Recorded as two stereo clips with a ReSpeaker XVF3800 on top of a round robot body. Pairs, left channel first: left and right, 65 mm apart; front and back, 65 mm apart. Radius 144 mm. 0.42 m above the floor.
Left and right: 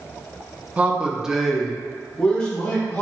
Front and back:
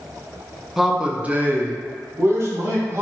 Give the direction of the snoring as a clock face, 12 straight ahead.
No snoring in this recording.